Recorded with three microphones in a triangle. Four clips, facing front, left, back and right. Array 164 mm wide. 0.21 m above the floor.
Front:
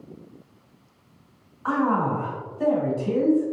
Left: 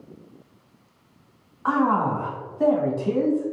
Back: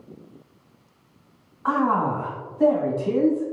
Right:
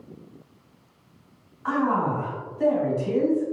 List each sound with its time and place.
1.6 s a man speaking: 115° left, 1.9 m